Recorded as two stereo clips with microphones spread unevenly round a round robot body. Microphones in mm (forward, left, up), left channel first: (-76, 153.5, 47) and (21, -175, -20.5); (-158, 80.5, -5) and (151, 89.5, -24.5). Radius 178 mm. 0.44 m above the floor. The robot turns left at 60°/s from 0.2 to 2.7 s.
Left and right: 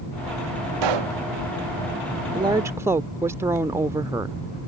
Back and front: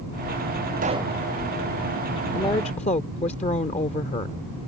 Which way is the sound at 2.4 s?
105° right.